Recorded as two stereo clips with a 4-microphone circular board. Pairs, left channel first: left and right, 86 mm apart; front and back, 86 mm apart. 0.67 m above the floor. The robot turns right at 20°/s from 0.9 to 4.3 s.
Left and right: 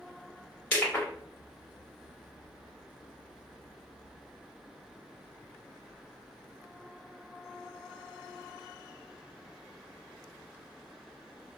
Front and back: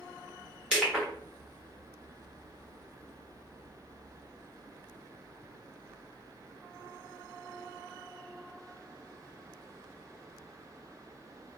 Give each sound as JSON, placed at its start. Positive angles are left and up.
{"t": 0.7, "sound": "crushing", "azimuth_deg": 110, "distance_m": 1.2}